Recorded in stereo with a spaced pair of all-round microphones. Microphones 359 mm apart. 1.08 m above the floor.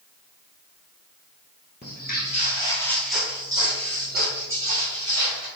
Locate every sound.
1.8 s footsteps: 30° left (ahead or behind), 1.3 m; by 5.5 s 50° right (ahead or behind), 1.6 m